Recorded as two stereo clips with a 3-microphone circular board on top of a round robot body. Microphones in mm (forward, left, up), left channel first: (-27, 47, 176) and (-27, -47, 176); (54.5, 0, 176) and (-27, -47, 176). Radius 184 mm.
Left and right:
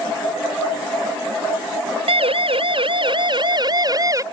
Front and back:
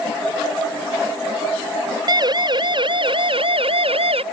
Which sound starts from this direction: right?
A siren, at 2.1 s.